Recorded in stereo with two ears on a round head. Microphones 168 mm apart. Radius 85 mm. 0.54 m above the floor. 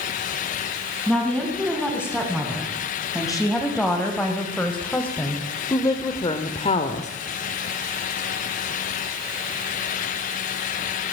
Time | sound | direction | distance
1.1 | a woman speaking | 5° right (ahead or behind) | 5 m